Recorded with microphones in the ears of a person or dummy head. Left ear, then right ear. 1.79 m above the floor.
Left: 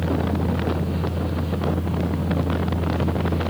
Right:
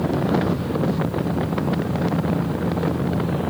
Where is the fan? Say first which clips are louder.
Right 3 dB; 10° right (ahead or behind), 1.8 m.